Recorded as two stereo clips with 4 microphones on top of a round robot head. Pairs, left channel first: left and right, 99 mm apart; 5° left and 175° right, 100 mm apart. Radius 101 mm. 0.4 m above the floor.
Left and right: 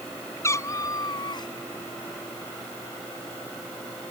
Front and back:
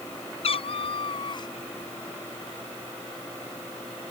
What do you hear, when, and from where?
0.4 s a cat meowing: 30° left; by 1.5 s 50° left